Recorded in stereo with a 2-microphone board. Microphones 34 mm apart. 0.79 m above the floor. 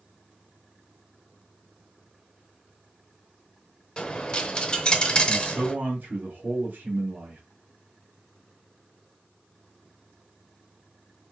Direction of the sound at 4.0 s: 25° left (ahead or behind).